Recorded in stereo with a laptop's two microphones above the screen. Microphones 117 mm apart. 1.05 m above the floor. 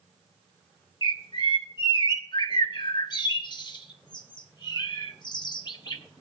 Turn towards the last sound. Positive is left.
turn(degrees=40)  # may be behind; listen again after turning